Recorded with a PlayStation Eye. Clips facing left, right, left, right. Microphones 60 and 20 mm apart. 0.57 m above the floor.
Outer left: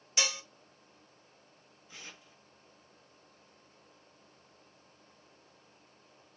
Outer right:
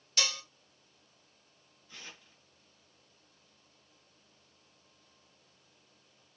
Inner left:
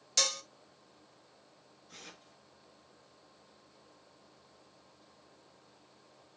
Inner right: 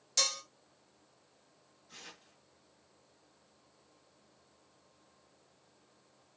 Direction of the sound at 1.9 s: 15° left (ahead or behind).